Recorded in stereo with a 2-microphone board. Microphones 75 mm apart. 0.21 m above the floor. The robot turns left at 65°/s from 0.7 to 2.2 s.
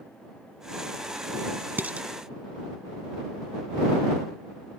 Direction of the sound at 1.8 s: 25° right (ahead or behind).